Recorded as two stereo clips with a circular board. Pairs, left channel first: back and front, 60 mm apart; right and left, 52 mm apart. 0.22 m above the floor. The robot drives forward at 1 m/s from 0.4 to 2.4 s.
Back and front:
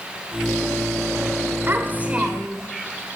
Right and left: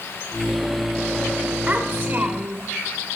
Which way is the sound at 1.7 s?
25° left.